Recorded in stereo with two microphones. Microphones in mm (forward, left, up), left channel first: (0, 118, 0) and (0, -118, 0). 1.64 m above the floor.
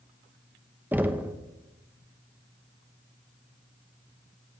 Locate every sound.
0.9 s knocking: 5° right (ahead or behind), 0.8 m